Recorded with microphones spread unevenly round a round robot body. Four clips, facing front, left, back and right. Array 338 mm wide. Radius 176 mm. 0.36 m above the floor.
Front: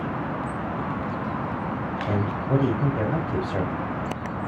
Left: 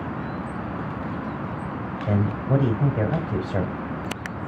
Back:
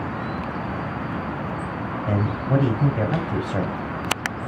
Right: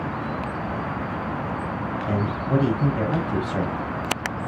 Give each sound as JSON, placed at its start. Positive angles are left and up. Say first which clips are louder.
{"t": 2.1, "sound": "a man speaking", "louder": "left 2 dB, back 2 dB", "azimuth_deg": 100, "distance_m": 2.0}